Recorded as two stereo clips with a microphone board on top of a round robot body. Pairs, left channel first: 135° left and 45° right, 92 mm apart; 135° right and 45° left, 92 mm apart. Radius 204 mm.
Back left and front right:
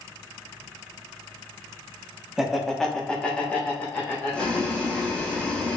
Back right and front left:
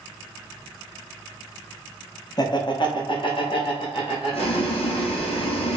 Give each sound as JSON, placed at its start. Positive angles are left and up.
{"t": 2.4, "sound": "laughter", "azimuth_deg": -130, "distance_m": 1.1}
{"t": 4.3, "sound": "boiling", "azimuth_deg": -145, "distance_m": 1.0}